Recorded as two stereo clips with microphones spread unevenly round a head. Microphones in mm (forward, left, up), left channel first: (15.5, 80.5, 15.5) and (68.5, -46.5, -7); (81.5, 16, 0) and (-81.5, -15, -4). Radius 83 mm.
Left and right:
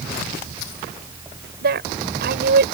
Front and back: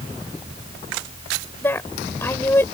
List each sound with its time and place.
1.6 s a woman speaking: 65° right